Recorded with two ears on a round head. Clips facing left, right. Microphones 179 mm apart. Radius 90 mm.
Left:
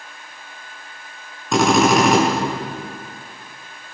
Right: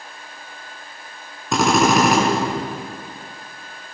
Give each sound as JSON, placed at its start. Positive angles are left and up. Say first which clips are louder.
{"t": 1.5, "sound": "a drill", "louder": "left 2 dB", "side_deg": 0, "distance_m": 7.5}